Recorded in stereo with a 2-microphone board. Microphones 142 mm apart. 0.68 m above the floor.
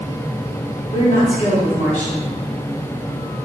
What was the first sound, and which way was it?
A woman speaking, 55° left (ahead or behind).